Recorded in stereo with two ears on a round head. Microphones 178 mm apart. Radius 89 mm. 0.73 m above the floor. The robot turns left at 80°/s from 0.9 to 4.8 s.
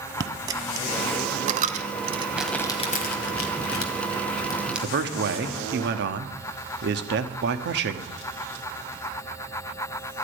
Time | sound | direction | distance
0.2 | a dropped coin | 20° right (ahead or behind) | 0.7 m
2.4 | crumpling | 5° right (ahead or behind) | 1.7 m
4.8 | a man speaking | 55° right (ahead or behind) | 1.2 m